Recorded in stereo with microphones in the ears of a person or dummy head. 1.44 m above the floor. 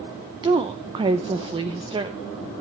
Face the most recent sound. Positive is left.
turn(degrees=-25)  # may be behind; listen again after turning